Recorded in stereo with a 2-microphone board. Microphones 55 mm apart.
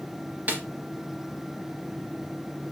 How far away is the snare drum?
About 0.7 m.